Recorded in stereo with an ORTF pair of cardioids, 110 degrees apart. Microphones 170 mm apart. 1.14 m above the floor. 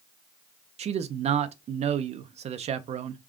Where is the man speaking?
40° right, 0.5 m.